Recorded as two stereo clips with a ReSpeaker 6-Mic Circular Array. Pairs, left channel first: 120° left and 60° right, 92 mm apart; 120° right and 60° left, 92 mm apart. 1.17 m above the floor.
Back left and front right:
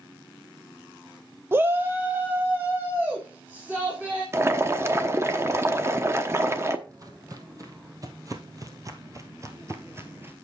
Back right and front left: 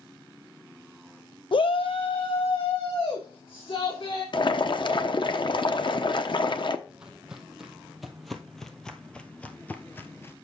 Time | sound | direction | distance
1.5 | a shout | 120° right | 0.6 m
4.3 | boiling | 115° right | 0.9 m
6.9 | footsteps | 20° right | 2 m